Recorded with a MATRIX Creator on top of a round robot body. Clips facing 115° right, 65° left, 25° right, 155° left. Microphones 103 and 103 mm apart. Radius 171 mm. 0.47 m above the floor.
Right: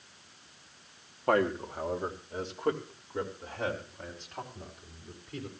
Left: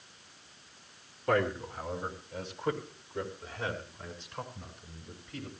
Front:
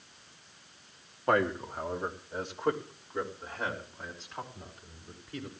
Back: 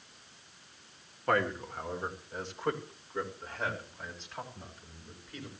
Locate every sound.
1.3 s a man speaking: 90° right, 2 m; by 5.5 s 105° right, 6 m